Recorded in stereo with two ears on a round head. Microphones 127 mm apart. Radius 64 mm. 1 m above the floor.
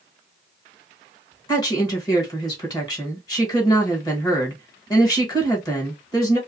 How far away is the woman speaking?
About 1.4 m.